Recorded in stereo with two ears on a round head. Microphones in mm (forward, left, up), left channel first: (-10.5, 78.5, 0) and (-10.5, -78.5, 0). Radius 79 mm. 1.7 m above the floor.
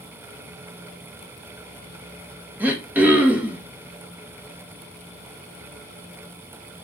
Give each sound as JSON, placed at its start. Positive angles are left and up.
{"t": 2.6, "sound": "throat clearing", "side_deg": -10, "distance_m": 1.5}